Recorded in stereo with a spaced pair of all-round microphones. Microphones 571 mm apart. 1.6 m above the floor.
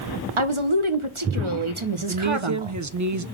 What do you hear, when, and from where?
0.4 s a woman speaking: 55° right (ahead or behind), 1.1 m
2.1 s a woman speaking: 35° right (ahead or behind), 0.5 m